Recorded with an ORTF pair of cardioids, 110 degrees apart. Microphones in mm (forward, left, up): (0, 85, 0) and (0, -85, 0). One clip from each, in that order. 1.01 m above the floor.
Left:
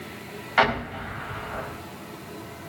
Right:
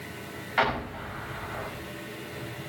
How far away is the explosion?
About 4 m.